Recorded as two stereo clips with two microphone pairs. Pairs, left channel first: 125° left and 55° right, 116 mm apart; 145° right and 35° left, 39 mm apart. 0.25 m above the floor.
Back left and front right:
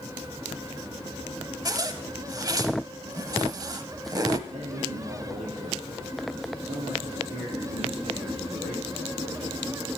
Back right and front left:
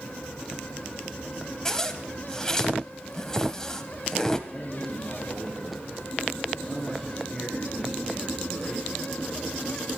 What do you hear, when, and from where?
1.6 s a zipper: 75° right, 0.8 m
4.5 s a man speaking: 60° right, 4.5 m